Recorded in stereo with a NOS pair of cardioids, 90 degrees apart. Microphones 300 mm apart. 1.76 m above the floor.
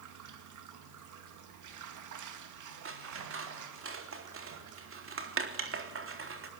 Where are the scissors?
40° right, 3.5 m.